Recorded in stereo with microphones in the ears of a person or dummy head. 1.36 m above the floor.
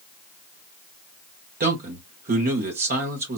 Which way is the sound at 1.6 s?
50° right (ahead or behind).